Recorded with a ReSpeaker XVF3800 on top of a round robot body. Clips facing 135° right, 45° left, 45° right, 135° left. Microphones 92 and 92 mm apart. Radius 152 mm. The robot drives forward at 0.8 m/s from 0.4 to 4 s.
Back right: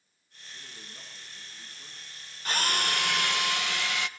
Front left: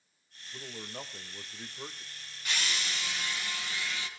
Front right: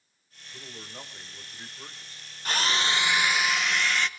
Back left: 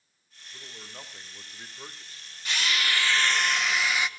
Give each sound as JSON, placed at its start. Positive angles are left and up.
{"t": 0.5, "sound": "a man speaking", "azimuth_deg": 40, "distance_m": 2.5}
{"t": 2.5, "sound": "a drill", "azimuth_deg": -90, "distance_m": 1.1}